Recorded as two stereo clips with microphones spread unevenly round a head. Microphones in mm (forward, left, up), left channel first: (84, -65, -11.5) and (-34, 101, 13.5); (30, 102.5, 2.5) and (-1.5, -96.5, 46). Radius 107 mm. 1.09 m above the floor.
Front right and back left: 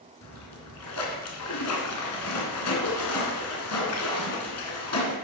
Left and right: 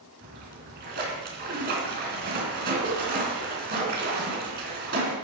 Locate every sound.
0.2 s a splash: 65° right, 3 m